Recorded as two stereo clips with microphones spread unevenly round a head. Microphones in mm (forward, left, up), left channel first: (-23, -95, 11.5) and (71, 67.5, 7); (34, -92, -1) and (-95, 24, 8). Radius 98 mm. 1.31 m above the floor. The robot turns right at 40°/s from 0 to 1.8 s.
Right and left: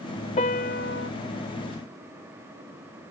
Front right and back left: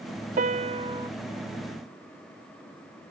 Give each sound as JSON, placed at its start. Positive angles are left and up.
{"t": 0.4, "sound": "a piano", "azimuth_deg": 180}